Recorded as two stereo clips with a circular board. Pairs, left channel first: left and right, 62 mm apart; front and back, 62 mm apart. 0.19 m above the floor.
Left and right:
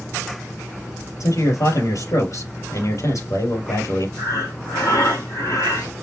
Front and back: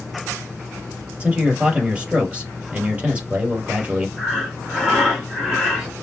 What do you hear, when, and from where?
1.2 s a man speaking: 110° left, 4 m
4.2 s breathing: 90° left, 3.5 m